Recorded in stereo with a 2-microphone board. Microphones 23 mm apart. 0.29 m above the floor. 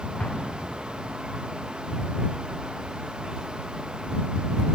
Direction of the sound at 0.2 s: 55° left (ahead or behind).